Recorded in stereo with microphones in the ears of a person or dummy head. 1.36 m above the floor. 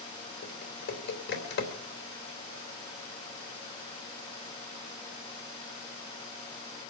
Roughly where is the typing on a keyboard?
Left.